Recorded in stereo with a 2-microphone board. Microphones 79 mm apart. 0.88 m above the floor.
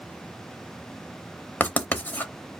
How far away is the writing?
About 0.7 m.